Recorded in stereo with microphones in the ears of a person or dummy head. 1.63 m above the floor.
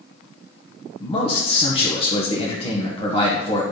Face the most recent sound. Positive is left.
turn(degrees=30)  # may be behind; listen again after turning